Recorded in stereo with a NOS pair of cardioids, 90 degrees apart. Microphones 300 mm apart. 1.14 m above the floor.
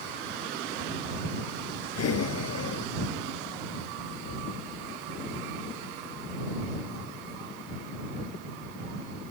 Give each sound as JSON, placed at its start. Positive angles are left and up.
{"t": 1.9, "sound": "breathing", "azimuth_deg": 55}